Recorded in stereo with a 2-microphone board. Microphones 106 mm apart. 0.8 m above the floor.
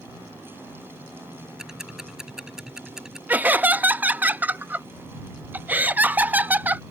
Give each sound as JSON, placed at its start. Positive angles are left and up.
{"t": 1.6, "sound": "ticking", "side_deg": -5}
{"t": 3.3, "sound": "laughter", "side_deg": -15}